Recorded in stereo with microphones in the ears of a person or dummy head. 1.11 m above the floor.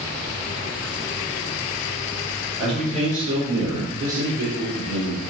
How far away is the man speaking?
About 1.0 m.